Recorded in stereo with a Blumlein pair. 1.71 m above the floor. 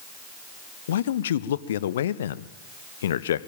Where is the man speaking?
60° left, 1.0 m.